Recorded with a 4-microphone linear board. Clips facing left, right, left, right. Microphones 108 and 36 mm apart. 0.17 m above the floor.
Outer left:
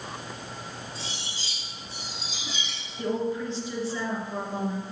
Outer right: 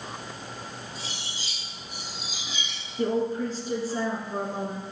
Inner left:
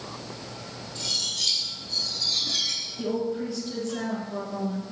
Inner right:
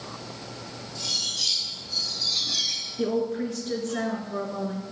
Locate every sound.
0.9 s cutlery clinking: 30° left (ahead or behind), 4.5 m
3.0 s a woman speaking: 45° right (ahead or behind), 2 m